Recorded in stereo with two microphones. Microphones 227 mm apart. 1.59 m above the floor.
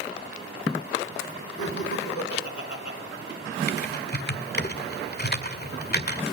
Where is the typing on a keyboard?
45° left (ahead or behind), 1.7 m.